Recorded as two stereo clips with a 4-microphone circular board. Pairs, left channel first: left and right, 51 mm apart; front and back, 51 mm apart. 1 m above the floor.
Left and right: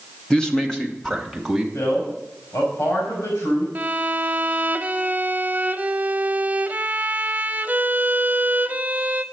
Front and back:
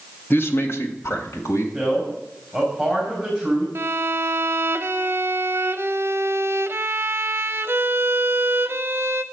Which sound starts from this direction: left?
A man speaking, at 1.7 s.